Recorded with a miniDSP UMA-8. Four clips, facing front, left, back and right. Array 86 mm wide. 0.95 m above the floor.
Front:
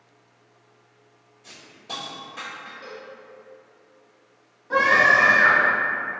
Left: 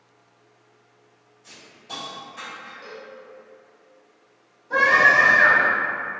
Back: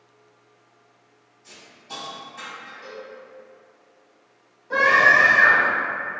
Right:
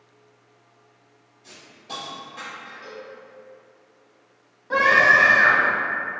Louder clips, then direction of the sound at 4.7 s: Even, back 1 dB; 70° right.